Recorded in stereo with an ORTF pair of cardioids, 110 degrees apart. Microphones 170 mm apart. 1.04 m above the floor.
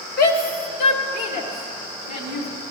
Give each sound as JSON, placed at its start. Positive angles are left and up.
{"t": 0.2, "sound": "a shout", "azimuth_deg": 65, "distance_m": 1.0}